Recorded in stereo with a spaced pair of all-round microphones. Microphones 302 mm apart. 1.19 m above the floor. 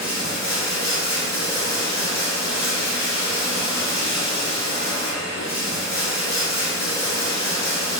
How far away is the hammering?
No hammering in this recording.